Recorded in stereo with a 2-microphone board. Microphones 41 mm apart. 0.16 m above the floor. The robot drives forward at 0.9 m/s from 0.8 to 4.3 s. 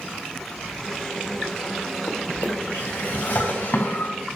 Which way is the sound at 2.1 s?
75° left (ahead or behind).